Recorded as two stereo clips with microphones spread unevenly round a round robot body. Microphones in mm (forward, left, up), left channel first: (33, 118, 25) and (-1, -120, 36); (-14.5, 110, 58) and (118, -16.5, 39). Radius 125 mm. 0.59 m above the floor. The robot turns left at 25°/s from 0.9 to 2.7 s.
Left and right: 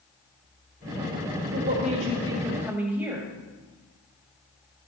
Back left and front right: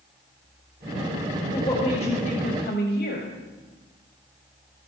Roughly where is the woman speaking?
Behind right.